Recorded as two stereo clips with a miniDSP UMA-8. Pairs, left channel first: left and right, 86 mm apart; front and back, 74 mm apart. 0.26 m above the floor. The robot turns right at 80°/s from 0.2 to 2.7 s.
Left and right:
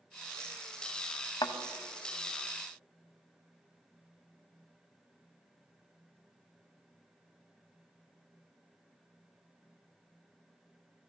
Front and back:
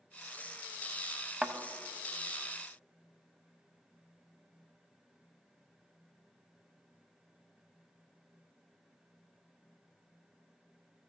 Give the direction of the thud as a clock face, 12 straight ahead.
8 o'clock.